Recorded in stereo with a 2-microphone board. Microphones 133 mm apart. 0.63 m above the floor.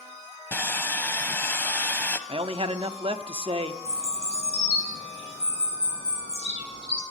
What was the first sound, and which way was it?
Sawing, 15° left (ahead or behind).